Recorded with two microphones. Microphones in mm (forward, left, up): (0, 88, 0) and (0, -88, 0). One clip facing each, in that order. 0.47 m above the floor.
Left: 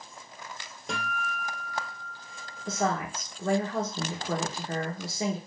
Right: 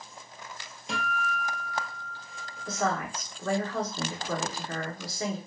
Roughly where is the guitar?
Left.